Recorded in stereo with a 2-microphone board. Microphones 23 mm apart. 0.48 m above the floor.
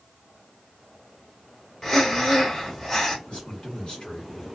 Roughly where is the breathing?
Centre.